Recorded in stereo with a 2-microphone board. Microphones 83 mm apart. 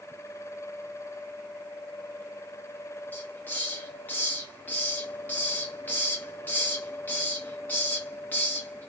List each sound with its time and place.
3.1 s a hiss: 20° left (ahead or behind), 0.8 m